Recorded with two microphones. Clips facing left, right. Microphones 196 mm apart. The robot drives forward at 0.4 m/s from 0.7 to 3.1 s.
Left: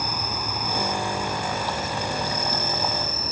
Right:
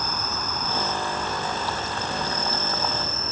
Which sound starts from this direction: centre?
An insect, at 0.0 s.